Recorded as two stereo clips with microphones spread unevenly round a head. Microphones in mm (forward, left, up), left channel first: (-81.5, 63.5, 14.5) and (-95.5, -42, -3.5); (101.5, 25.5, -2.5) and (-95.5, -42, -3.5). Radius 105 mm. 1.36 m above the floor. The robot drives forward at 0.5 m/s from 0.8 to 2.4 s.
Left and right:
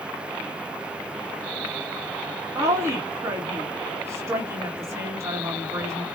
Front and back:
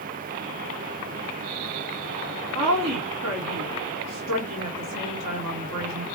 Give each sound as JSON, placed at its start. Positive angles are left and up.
{"t": 2.5, "sound": "a woman speaking", "azimuth_deg": -160, "distance_m": 1.4}